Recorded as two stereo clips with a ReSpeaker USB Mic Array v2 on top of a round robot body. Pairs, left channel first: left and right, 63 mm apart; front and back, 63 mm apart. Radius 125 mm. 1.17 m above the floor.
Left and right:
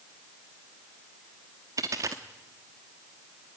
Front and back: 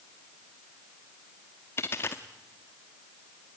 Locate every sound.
1.8 s a dropped coin: 55° right, 0.8 m